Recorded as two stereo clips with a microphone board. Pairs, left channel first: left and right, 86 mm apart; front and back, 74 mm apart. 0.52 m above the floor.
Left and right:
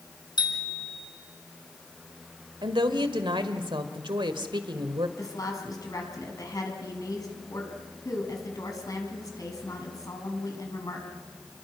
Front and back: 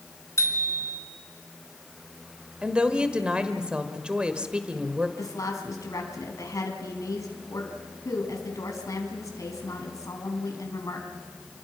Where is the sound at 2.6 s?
105° right, 1.6 m.